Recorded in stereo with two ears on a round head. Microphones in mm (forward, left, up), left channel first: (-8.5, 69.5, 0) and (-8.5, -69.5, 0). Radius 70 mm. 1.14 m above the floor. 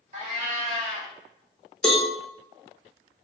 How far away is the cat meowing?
About 0.7 m.